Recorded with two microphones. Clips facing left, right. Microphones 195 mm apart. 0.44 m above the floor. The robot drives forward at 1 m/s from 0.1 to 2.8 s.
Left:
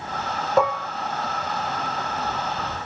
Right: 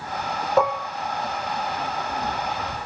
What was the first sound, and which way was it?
Dishes clattering, centre (ahead or behind).